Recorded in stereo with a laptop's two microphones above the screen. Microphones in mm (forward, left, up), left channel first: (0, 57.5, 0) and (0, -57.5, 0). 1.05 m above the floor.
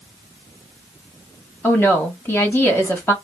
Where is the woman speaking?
20° left (ahead or behind), 1.3 m.